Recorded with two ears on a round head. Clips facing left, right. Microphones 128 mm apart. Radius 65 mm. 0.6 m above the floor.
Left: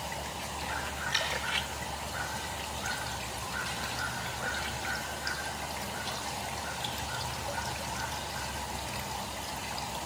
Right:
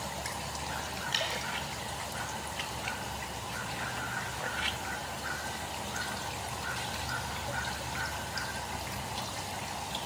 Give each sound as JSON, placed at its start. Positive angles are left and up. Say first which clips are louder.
{"t": 1.1, "sound": "dripping", "louder": "even", "side_deg": -30, "distance_m": 3.5}